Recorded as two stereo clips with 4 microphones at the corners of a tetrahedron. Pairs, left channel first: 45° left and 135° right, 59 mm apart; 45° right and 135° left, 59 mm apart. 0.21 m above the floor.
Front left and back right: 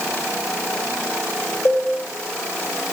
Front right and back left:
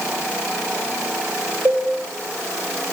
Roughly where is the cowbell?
Left.